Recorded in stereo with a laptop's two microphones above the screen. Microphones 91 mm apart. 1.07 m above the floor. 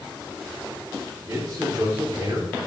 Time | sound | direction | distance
1.3 | a man speaking | 40° right (ahead or behind) | 3.5 m